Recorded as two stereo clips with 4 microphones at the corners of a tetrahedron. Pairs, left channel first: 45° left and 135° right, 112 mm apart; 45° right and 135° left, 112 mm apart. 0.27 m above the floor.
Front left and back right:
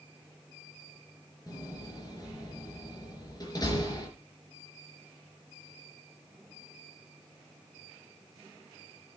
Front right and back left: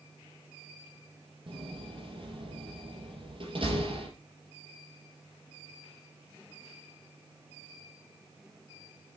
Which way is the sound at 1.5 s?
100° left.